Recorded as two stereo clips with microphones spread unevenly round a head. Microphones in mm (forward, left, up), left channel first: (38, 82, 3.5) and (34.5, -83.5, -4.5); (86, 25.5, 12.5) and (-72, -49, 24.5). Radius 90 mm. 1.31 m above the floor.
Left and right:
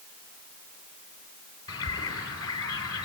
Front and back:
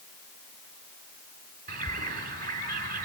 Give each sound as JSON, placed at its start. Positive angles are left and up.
{"t": 1.7, "sound": "a bird", "azimuth_deg": 160, "distance_m": 3.5}